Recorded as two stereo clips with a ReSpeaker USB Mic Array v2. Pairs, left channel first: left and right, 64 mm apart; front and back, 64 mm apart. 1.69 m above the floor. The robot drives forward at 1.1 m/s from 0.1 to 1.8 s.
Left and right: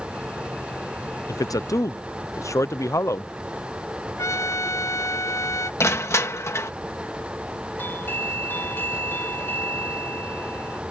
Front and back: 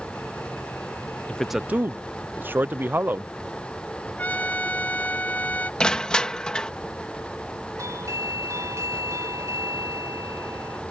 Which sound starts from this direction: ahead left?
A trumpet, at 4.2 s.